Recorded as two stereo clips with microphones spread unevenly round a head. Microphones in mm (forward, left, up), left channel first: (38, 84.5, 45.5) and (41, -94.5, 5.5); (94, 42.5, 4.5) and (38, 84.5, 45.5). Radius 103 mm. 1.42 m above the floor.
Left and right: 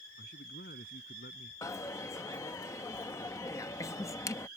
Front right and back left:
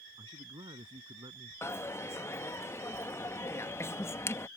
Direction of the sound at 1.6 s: 40° left.